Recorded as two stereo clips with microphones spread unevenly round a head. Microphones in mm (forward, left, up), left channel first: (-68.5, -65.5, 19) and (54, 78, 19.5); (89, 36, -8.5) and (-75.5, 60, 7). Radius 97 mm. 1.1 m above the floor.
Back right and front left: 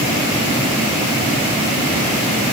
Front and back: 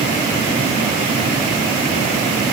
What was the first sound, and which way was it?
Only background noise.